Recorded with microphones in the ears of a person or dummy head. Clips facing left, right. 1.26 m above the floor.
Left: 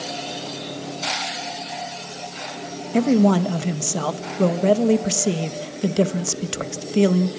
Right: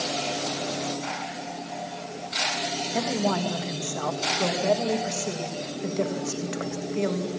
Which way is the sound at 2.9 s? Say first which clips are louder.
Left 11 dB; 55° left (ahead or behind).